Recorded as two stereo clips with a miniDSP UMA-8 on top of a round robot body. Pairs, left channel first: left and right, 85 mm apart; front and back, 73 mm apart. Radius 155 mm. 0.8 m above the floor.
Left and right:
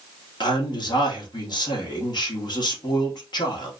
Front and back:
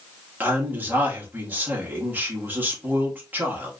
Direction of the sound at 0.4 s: 115° left.